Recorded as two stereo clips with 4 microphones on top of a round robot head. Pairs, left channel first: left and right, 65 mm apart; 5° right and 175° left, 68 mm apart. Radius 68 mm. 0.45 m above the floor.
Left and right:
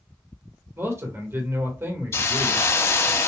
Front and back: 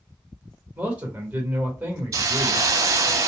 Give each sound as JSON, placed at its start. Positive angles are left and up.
{"t": 0.8, "sound": "a man speaking", "azimuth_deg": -120, "distance_m": 1.6}
{"t": 2.1, "sound": "a hiss", "azimuth_deg": 140, "distance_m": 0.5}